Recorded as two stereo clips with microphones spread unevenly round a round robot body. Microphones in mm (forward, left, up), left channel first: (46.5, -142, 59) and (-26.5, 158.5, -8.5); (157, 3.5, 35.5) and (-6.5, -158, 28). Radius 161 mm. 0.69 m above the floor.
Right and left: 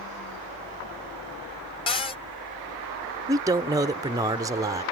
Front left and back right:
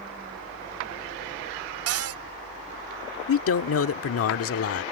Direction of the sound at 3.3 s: 30° left.